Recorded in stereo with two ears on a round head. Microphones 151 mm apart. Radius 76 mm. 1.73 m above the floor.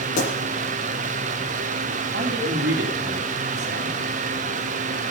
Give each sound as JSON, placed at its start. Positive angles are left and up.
{"t": 0.2, "sound": "a pop", "side_deg": 60, "distance_m": 9.5}
{"t": 2.1, "sound": "a man speaking", "side_deg": -75, "distance_m": 4.0}